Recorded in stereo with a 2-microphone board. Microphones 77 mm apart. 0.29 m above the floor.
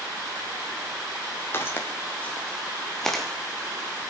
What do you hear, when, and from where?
1.5 s footsteps: 30° left (ahead or behind), 4.5 m; by 3.2 s centre (ahead or behind), 3.5 m